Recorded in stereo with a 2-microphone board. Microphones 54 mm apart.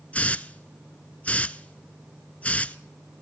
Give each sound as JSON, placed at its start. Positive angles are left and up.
{"t": 0.1, "sound": "a hiss", "side_deg": 25, "distance_m": 0.6}